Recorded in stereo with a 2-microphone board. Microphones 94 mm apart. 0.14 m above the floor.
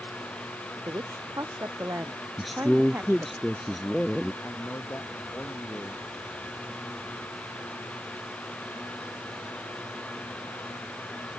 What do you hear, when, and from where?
0.8 s a woman speaking: 40° right (ahead or behind); by 3.4 s 25° right (ahead or behind)
2.4 s a man speaking: centre (ahead or behind)
4.4 s a man speaking: 20° left (ahead or behind)